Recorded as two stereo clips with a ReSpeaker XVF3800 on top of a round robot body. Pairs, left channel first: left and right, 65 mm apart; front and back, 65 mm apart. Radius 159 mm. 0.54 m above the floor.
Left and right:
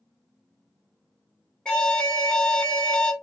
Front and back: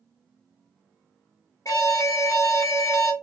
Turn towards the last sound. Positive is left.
turn(degrees=20)